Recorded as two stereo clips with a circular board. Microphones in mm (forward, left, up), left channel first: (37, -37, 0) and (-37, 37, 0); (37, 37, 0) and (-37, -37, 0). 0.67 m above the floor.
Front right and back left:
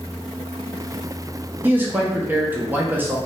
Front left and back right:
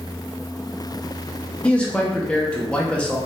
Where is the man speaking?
105° left, 0.5 m.